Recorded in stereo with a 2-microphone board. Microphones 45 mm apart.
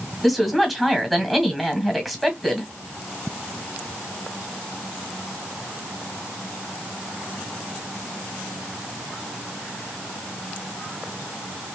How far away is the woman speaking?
About 1.4 m.